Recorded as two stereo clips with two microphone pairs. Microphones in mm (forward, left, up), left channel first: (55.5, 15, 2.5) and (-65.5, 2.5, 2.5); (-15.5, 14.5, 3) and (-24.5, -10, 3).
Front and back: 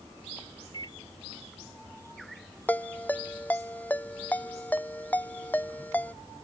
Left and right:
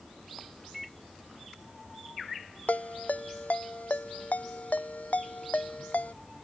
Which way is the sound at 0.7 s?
20° right.